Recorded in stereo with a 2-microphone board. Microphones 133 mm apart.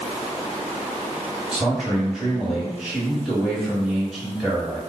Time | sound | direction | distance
1.5 | a man speaking | centre (ahead or behind) | 1.5 m